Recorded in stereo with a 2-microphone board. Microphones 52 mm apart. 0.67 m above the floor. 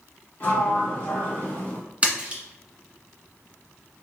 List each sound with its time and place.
0.4 s a sliding door: 30° left (ahead or behind), 1.3 m
2.0 s a splash: 25° right (ahead or behind), 1.3 m